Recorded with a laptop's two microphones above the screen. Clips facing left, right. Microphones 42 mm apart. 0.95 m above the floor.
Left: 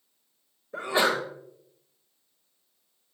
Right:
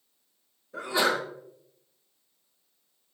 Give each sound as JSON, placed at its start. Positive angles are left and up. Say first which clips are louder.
{"t": 0.7, "sound": "a sneeze", "louder": "left 1 dB", "side_deg": 40, "distance_m": 0.9}